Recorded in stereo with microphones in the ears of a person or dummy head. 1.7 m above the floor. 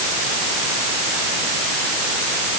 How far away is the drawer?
I don't hear a drawer.